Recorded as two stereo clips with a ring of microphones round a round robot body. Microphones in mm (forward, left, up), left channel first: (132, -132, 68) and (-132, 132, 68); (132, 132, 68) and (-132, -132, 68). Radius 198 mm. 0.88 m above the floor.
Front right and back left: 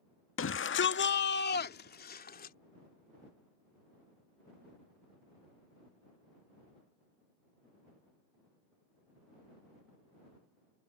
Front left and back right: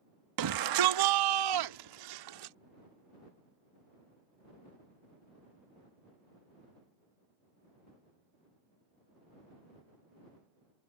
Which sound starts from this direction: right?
A shout, at 0.4 s.